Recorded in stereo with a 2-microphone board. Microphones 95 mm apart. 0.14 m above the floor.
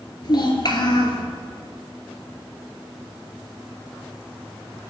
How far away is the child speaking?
About 2 m.